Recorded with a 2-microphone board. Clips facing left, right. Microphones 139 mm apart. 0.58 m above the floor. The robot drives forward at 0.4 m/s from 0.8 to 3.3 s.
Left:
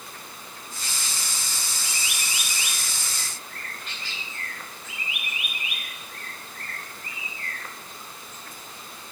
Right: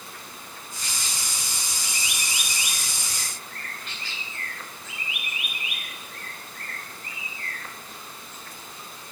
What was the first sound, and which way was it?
Only background noise.